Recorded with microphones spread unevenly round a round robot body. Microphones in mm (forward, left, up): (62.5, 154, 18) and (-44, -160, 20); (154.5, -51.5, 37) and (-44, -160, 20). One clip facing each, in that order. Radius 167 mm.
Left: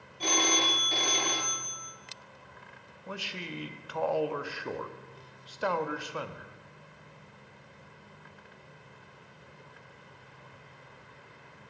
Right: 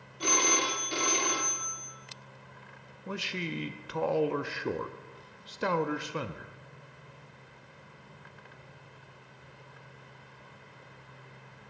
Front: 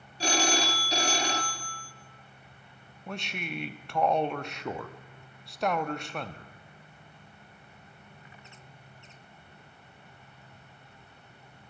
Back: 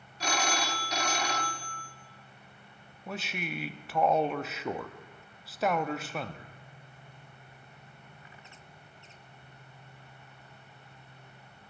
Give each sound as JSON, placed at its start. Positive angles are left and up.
{"t": 0.2, "sound": "a phone ringing", "azimuth_deg": -35, "distance_m": 1.0}
{"t": 3.1, "sound": "a man speaking", "azimuth_deg": -75, "distance_m": 0.6}